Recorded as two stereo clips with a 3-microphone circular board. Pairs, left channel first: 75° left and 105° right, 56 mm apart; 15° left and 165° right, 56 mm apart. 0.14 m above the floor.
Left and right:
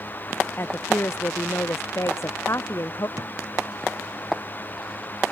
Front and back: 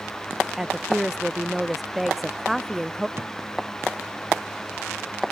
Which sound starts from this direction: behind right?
A thud, at 3.2 s.